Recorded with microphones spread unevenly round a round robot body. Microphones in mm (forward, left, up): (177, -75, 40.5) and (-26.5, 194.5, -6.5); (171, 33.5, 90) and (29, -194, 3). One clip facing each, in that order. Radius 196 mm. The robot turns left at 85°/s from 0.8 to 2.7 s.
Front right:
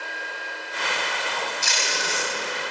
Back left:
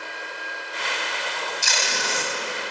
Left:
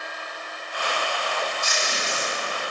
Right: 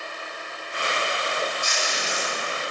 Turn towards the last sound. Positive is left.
turn(degrees=35)